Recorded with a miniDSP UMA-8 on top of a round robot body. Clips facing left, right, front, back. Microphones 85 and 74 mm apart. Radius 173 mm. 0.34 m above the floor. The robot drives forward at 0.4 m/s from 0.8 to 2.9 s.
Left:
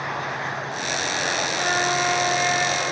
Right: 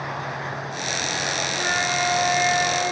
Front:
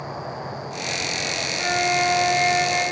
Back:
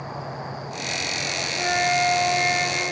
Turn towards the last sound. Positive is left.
turn(degrees=160)